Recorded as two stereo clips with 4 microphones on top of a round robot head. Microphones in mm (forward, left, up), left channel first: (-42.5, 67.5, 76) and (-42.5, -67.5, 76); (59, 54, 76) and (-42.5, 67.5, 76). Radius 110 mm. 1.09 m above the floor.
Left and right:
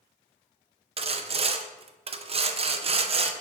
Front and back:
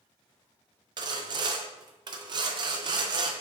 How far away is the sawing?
About 0.6 m.